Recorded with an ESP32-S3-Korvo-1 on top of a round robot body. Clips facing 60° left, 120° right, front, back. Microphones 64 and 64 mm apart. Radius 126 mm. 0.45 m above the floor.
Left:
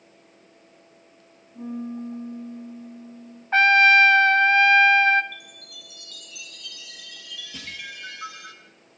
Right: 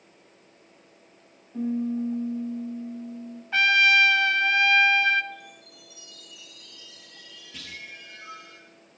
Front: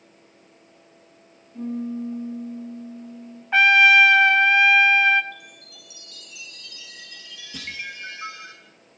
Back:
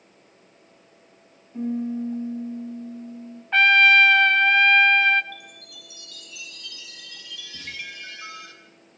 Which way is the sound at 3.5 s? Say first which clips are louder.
Left 5 dB, front 1 dB; 75° left.